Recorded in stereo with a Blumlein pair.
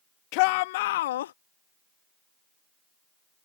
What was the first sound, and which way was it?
A shout, 45° left.